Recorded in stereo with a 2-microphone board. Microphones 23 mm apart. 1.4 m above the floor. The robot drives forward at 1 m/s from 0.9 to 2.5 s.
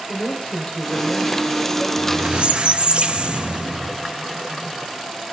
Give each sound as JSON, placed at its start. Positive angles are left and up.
{"t": 0.1, "sound": "a woman speaking", "side_deg": 55, "distance_m": 5.5}
{"t": 2.0, "sound": "a squeak", "side_deg": -55, "distance_m": 1.1}